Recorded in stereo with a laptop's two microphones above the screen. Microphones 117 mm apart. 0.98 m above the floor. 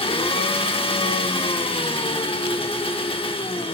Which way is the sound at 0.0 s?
50° left (ahead or behind).